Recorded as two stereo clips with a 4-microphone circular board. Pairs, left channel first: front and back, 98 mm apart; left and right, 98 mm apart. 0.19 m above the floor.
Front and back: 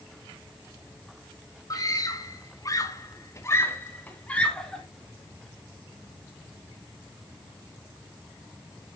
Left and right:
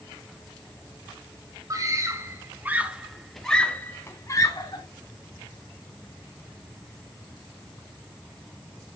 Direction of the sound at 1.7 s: 45° right.